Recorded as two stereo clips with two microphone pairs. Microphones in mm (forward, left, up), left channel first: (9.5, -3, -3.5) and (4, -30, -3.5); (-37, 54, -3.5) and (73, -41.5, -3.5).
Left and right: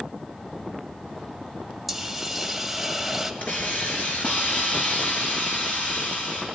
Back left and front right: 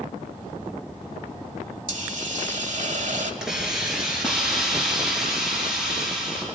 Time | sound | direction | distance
1.9 | a hiss | 20° right | 1.2 m
3.4 | a hiss | 45° left | 4 m